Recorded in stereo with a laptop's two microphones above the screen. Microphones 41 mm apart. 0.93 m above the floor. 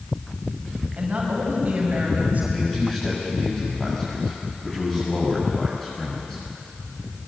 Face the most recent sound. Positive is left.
turn(degrees=15)  # may be behind; listen again after turning